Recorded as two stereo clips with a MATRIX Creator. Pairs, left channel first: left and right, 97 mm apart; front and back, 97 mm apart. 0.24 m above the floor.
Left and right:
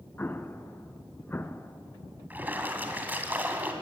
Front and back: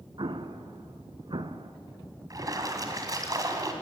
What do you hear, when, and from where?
0.2 s an explosion: 155° left, 0.9 m
2.3 s a splash: 155° right, 2 m